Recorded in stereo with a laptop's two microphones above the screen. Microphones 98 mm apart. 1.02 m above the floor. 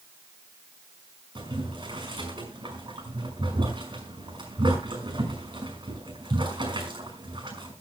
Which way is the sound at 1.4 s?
55° right (ahead or behind).